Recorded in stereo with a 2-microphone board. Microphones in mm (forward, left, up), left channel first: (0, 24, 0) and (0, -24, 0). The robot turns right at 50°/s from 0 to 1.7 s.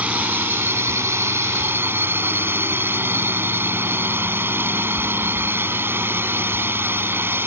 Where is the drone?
145° right; by 7.5 s 60° right.